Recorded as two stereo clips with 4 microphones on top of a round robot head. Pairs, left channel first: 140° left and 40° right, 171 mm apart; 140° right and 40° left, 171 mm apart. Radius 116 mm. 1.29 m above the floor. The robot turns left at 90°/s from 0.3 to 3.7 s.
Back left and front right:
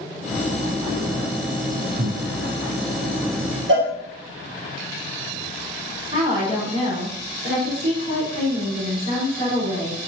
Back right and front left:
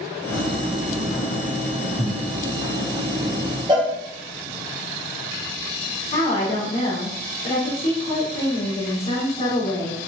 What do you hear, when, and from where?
2.0 s breathing: 15° right, 1.7 m; by 2.2 s 40° right, 1.7 m
3.7 s a cowbell: 25° right, 1.7 m
6.1 s a woman speaking: 90° right, 3.5 m